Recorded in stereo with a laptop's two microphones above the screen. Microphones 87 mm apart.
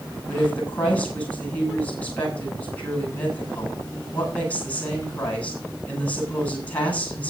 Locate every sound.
0.3 s a woman speaking: 20° left (ahead or behind), 7.5 m